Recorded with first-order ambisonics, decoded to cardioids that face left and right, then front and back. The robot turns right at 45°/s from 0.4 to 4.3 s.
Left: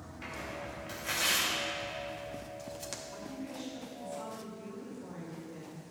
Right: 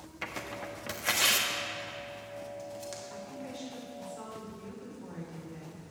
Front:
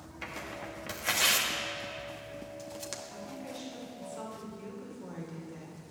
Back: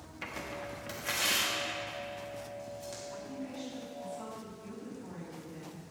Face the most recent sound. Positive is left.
turn(degrees=-15)